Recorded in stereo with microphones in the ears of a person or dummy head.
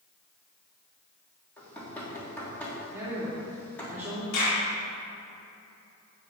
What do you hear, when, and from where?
1.6 s knocking: 10° left (ahead or behind), 3 m
2.9 s a woman speaking: 15° right (ahead or behind), 3 m
4.3 s a clap: 75° left (ahead or behind), 3.5 m